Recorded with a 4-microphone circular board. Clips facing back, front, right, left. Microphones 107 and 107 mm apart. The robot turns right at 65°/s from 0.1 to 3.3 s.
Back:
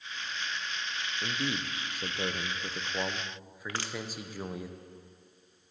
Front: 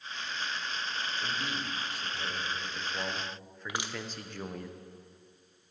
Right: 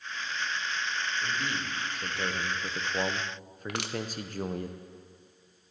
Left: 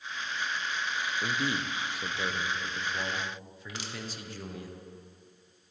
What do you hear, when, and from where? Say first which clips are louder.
1.2 s a man speaking: back 2 dB, left 2 dB; 120° left, 0.8 m; by 4.7 s 100° right, 0.8 m
3.7 s crushing: even, right 7 dB; 75° right, 0.6 m